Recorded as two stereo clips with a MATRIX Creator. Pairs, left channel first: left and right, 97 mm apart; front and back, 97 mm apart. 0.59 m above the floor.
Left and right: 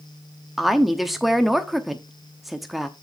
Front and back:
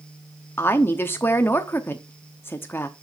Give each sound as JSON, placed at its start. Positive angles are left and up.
{"t": 0.6, "sound": "a woman speaking", "azimuth_deg": -5, "distance_m": 0.9}